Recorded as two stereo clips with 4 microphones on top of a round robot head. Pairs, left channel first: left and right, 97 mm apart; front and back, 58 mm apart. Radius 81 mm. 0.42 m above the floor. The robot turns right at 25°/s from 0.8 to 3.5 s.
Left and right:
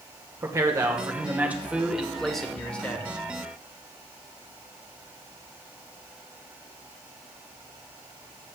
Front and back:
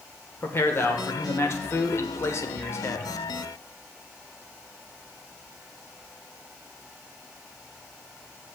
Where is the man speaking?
35° right, 1.4 m; by 3.0 s 20° left, 1.4 m.